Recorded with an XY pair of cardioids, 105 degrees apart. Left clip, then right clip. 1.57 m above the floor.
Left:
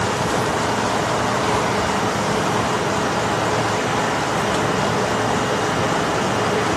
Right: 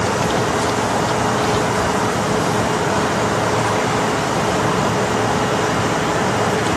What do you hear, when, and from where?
0.0 s a fan: 20° right